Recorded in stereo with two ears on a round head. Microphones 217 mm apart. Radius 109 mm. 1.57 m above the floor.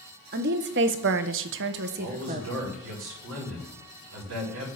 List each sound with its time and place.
0.3 s a woman speaking: 45° right (ahead or behind), 1.1 m; by 2.5 s 30° right (ahead or behind), 0.9 m
2.0 s a man speaking: 65° right (ahead or behind), 3.5 m